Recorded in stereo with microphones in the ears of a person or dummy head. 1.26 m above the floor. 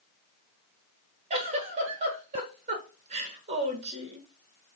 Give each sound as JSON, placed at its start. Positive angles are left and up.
{"t": 1.3, "sound": "a giggle", "side_deg": -40, "distance_m": 1.1}